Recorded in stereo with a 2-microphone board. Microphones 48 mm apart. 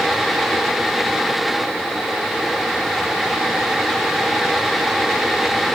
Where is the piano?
I don't hear a piano.